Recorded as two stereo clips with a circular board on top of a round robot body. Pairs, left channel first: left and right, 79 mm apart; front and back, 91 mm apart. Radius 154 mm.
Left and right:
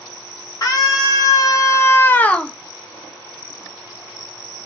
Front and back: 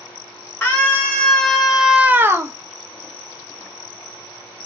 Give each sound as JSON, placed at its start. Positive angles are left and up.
{"t": 0.6, "sound": "a scream", "azimuth_deg": 70, "distance_m": 1.1}